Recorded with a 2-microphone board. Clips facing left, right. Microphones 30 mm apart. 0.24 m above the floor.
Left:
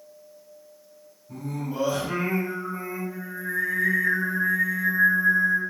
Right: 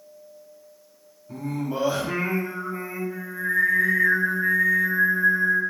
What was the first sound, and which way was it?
Singing, 40° right (ahead or behind).